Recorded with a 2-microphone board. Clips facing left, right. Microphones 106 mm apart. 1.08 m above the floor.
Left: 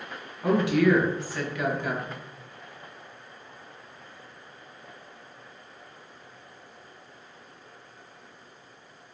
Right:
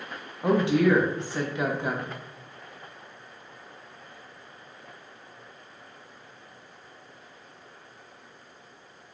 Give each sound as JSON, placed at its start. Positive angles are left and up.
{"t": 0.4, "sound": "a woman speaking", "side_deg": -25, "distance_m": 0.5}